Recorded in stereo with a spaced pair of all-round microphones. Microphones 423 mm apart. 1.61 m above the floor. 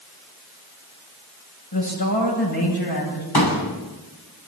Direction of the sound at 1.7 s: 60° left (ahead or behind).